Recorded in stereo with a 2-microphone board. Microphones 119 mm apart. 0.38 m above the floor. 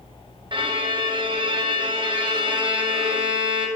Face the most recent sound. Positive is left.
turn(degrees=-40)  # may be behind; listen again after turning